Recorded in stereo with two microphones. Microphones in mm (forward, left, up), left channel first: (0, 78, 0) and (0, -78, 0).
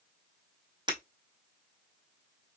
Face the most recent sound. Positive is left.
turn(degrees=-30)  # may be behind; listen again after turning